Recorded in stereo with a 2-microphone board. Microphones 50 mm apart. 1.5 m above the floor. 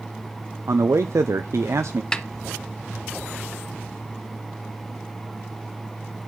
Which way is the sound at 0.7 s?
70° right (ahead or behind).